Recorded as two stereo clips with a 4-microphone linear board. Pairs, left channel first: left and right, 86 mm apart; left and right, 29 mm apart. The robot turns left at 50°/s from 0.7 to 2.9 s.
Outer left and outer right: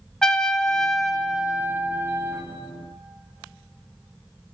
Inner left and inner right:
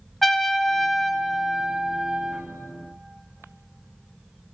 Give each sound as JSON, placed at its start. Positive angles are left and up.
{"t": 0.2, "sound": "a trumpet", "azimuth_deg": 15, "distance_m": 0.9}